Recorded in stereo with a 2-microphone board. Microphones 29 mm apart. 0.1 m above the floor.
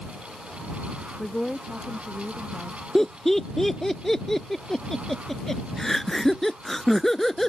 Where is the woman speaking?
15° left (ahead or behind).